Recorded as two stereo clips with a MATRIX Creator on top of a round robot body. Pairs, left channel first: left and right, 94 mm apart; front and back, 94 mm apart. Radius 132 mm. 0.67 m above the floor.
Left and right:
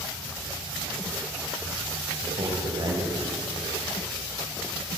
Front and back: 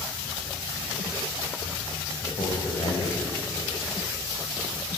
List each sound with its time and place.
2.2 s a man speaking: 45° right, 3.5 m